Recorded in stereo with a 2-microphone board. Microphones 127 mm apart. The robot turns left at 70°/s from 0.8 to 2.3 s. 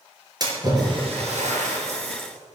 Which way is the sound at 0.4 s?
35° right (ahead or behind).